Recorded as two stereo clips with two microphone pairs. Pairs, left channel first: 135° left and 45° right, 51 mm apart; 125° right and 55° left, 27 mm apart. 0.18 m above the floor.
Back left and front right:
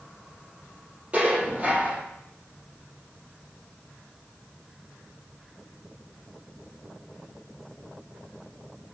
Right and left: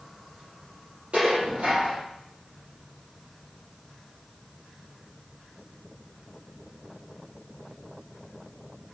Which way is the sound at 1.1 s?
20° left.